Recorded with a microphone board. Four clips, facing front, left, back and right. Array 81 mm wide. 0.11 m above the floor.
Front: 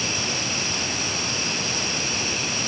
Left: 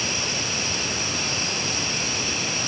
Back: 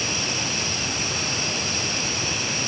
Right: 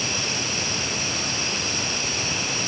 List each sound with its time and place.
Only background noise.